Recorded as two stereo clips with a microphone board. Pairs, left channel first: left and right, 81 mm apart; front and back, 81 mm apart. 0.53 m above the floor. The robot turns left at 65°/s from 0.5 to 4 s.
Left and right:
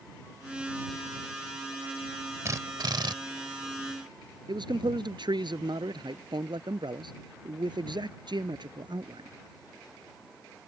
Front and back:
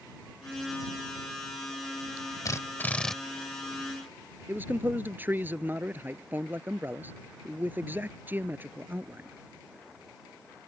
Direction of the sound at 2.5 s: 40° right.